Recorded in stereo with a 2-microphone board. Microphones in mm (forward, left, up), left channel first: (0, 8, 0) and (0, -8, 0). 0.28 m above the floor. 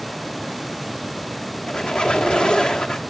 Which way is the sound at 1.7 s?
70° left (ahead or behind).